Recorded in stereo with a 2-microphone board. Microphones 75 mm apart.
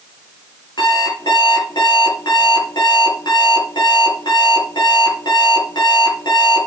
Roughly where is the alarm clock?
Left.